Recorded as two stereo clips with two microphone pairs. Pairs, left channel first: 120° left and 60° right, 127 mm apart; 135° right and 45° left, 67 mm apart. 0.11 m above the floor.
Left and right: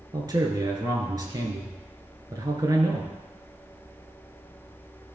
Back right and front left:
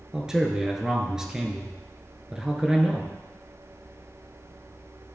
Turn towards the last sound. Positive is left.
turn(degrees=-30)